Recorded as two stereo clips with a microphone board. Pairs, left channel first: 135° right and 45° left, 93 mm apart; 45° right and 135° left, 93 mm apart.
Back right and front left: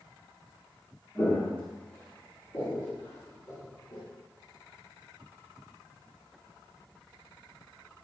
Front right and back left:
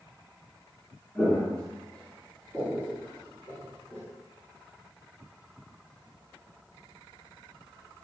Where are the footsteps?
110° right, 1.7 m.